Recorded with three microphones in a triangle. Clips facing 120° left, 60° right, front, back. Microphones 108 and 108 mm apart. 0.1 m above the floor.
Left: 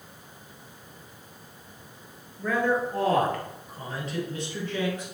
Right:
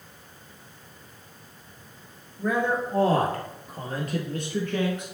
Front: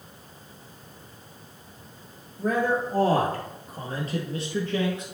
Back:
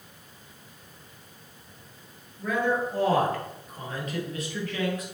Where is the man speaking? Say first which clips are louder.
Even, front 2 dB; 10° left, 1.9 m; by 5.0 s 60° right, 3 m.